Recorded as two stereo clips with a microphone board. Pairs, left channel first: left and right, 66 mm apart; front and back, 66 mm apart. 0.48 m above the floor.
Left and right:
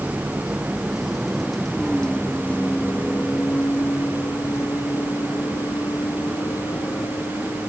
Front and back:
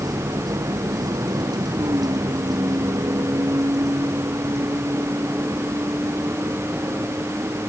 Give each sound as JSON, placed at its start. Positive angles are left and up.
{"t": 0.0, "sound": "a vehicle", "azimuth_deg": -165}